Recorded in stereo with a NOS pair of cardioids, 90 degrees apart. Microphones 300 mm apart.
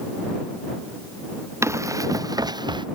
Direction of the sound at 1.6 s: 10° right.